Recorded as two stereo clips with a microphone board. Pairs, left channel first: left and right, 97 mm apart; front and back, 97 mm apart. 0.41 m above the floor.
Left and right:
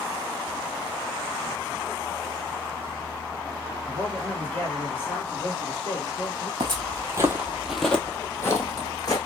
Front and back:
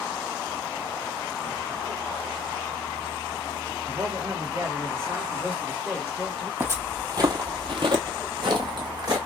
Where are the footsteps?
115° right, 0.8 m; by 9.2 s 140° left, 1.3 m.